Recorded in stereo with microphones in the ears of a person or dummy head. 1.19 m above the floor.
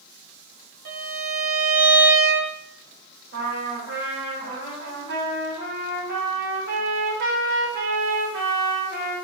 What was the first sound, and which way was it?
A violin, 45° right (ahead or behind).